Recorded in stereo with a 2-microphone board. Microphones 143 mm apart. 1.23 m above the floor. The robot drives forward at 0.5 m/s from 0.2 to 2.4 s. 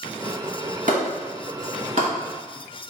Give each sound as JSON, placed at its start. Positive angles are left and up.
{"t": 0.9, "sound": "a clap", "side_deg": -65, "distance_m": 1.7}